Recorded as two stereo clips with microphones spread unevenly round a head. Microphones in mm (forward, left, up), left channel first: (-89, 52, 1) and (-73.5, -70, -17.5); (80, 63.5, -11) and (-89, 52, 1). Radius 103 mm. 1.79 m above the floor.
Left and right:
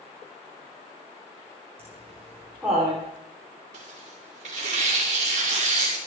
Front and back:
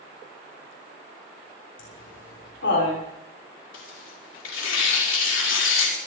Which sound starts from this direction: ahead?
Laughter, at 1.8 s.